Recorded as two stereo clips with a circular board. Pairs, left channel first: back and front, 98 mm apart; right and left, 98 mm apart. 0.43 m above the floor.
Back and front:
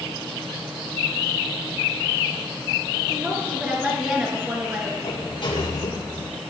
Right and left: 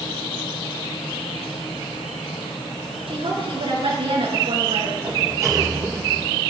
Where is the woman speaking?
75° left, 7 m.